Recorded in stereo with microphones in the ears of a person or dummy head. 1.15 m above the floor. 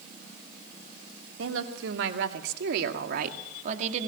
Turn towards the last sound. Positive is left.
turn(degrees=-40)  # may be behind; listen again after turning